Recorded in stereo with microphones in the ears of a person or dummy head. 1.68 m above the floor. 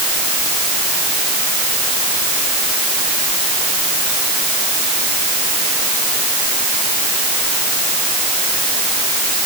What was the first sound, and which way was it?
Only background noise.